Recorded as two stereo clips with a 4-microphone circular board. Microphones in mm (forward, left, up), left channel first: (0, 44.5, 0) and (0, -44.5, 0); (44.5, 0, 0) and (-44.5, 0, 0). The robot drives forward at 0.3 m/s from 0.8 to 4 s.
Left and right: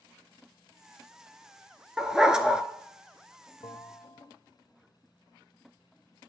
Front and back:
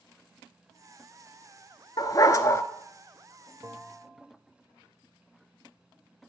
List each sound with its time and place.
2.0 s a dog barking: 10° right, 0.6 m; by 2.6 s 15° right, 0.5 m
3.6 s a bell: 125° left, 0.6 m; by 4.3 s 135° left, 0.7 m